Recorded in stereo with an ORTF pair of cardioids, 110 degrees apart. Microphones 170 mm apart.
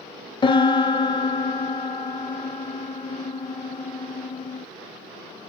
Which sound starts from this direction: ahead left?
A piano, at 0.4 s.